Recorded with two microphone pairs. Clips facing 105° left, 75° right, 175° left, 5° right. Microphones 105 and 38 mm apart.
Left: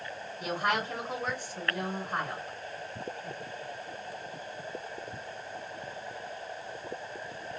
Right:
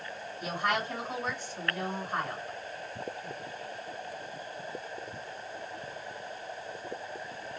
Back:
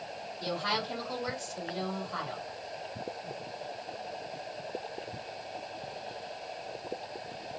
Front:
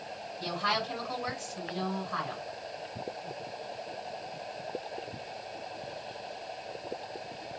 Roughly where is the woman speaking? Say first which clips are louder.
Left 1 dB, front 2 dB; ahead.